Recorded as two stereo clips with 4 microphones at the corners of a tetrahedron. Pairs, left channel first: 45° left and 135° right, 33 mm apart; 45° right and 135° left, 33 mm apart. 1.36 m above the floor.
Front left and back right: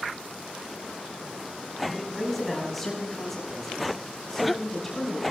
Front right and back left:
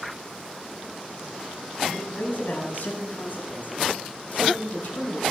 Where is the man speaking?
40° right, 4 m; by 5.2 s 35° right, 6.5 m.